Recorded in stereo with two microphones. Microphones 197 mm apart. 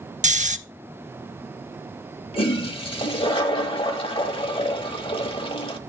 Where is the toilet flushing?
25° left (ahead or behind), 1.1 m.